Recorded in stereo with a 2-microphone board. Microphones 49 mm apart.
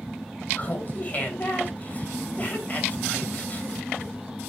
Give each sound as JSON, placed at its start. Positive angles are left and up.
{"t": 0.6, "sound": "laughter", "side_deg": 35, "distance_m": 2.5}